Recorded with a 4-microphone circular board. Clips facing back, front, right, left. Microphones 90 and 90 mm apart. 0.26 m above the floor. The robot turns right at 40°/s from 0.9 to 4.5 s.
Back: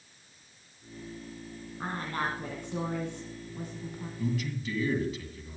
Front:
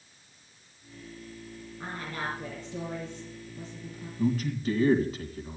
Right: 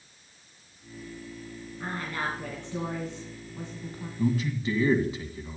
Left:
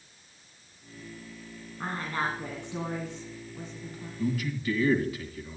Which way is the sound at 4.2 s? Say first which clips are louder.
Front 6 dB, right 3 dB; 40° right.